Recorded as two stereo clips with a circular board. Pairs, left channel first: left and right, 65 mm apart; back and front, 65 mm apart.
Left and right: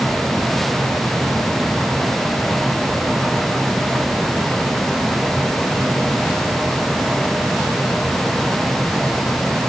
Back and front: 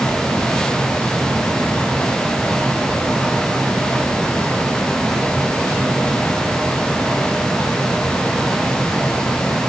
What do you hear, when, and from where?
Only background noise.